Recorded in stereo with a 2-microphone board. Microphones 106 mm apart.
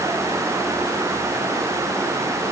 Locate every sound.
Only background noise.